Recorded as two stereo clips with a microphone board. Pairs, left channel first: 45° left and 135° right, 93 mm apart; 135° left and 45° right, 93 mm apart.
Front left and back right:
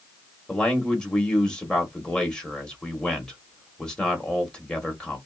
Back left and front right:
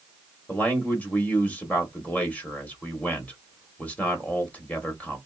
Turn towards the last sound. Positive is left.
turn(degrees=105)